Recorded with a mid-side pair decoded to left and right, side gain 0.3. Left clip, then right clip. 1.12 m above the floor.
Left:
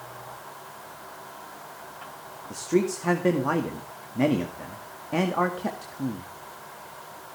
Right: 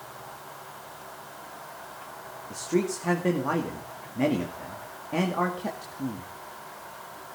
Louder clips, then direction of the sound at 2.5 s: Left 3 dB; 30° left.